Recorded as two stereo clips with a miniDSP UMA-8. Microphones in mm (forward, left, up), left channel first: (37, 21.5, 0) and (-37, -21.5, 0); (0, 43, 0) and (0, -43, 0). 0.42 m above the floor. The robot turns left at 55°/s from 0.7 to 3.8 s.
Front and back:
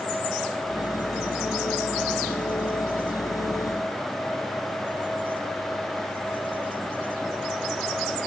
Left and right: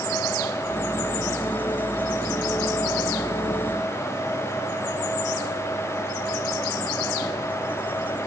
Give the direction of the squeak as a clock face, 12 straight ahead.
No squeak in this recording.